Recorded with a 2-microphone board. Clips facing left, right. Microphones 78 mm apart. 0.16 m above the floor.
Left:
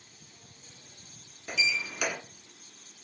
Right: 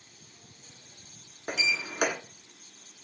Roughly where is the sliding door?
Right.